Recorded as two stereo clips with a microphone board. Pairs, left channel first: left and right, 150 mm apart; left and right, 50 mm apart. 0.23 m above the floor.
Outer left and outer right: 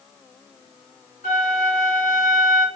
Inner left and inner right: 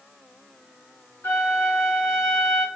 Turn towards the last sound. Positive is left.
turn(degrees=75)  # may be behind; listen again after turning